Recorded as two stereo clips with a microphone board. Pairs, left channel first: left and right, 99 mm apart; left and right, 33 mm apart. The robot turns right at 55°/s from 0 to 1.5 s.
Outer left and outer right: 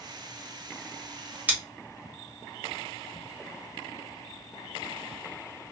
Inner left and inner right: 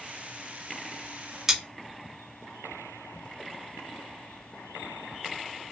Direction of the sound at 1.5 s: 15° right (ahead or behind).